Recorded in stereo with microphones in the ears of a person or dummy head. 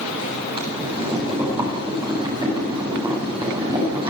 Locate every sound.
0.6 s boiling: 25° right (ahead or behind), 7.5 m